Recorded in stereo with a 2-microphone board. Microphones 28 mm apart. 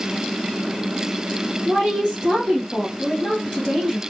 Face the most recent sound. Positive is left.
turn(degrees=20)  # may be behind; listen again after turning